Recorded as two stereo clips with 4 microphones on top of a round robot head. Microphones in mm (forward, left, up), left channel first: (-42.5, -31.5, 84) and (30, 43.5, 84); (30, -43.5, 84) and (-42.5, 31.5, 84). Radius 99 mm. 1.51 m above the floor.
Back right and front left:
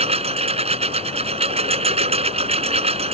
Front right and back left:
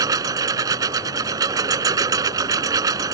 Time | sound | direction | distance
0.0 | a lawn mower | 75° left | ?